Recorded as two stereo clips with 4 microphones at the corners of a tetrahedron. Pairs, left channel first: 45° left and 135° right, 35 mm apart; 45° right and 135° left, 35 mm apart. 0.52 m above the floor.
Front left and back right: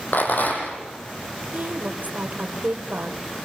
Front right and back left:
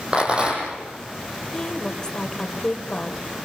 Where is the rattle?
70° left, 5.5 m.